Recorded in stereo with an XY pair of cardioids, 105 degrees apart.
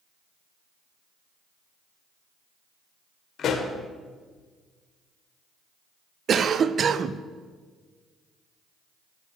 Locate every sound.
3.4 s a pop: 55° left, 1.4 m
6.3 s a cough: 50° right, 0.6 m